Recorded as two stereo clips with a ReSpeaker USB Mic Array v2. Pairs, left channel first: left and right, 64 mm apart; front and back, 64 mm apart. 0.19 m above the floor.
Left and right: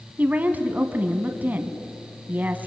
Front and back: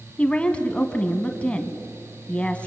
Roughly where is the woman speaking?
Ahead right.